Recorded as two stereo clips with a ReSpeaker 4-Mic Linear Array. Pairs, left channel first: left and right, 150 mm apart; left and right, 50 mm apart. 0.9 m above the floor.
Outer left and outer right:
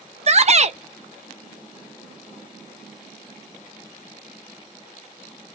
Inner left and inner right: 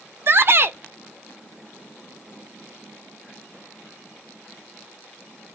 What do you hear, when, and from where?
0.3 s a shout: 50° right (ahead or behind), 0.5 m